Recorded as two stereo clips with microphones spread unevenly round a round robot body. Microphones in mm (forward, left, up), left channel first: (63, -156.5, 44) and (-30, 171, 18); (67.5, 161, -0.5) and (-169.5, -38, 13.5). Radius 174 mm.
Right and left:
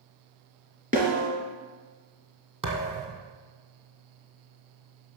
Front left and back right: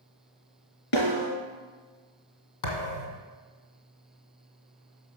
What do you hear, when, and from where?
0.9 s a snare drum: 40° left, 2.5 m
2.6 s a thud: 30° left, 1.9 m